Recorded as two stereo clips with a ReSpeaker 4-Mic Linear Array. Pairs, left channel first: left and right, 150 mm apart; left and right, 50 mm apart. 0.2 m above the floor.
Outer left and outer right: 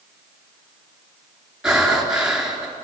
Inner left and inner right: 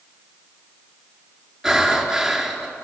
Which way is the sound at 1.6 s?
5° right (ahead or behind).